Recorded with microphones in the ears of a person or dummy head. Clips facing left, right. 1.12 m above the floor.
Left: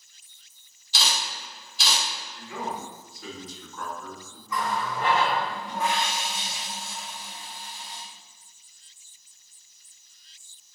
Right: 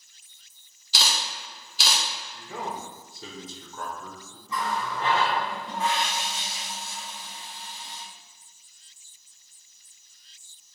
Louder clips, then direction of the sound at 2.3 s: Left 1 dB; 30° right (ahead or behind).